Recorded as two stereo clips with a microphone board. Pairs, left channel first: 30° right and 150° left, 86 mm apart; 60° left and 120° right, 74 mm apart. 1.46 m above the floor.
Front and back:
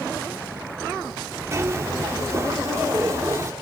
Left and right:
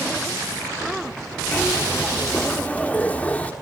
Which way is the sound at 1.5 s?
120° left.